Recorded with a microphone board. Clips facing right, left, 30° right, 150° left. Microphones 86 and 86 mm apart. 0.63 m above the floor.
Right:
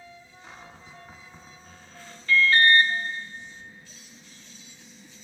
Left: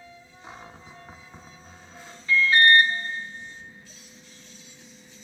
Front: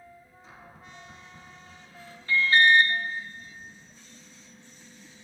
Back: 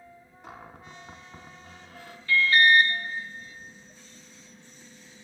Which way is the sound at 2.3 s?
20° left.